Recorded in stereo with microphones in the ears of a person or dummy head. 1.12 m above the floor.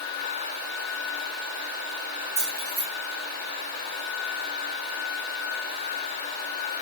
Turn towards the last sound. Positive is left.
turn(degrees=15)  # may be behind; listen again after turning